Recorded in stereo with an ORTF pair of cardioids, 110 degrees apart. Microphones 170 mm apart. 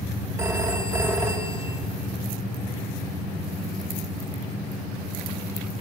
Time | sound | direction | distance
0.4 | a phone ringing | 20° right | 4 m